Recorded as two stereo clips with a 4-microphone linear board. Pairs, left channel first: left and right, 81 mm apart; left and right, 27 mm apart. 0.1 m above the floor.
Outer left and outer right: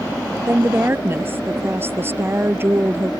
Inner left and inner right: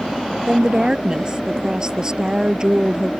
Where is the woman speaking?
30° right (ahead or behind).